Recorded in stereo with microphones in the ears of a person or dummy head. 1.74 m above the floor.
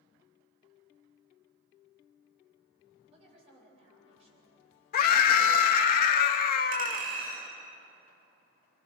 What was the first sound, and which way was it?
A woman speaking, 30° right (ahead or behind).